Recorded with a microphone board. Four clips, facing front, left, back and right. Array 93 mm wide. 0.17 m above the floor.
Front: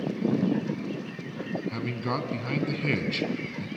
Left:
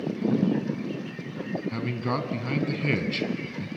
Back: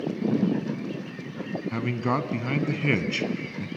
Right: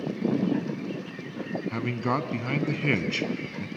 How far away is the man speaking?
About 1.0 m.